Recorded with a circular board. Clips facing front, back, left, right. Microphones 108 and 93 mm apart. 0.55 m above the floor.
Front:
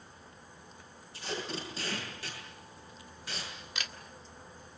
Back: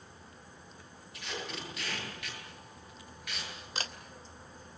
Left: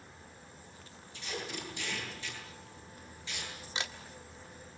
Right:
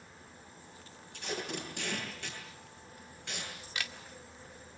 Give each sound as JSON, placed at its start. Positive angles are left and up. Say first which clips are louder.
{"t": 1.1, "sound": "tape being pulled", "louder": "front 3 dB, right 2 dB", "azimuth_deg": -60, "distance_m": 9.5}
{"t": 3.8, "sound": "a camera shutter", "louder": "back 3 dB, left 2 dB", "azimuth_deg": 145, "distance_m": 1.7}